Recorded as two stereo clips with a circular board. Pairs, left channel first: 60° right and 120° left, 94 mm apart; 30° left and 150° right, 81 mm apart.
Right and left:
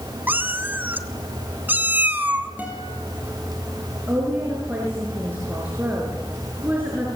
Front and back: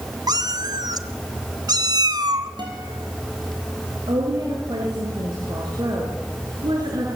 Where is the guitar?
170° right, 7 m.